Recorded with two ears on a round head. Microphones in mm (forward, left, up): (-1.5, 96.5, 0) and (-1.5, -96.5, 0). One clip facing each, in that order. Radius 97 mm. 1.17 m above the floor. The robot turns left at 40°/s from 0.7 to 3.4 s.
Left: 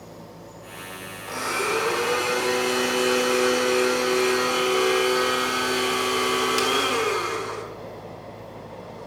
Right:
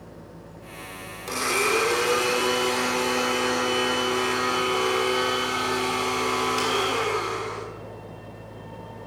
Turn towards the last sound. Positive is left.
turn(degrees=150)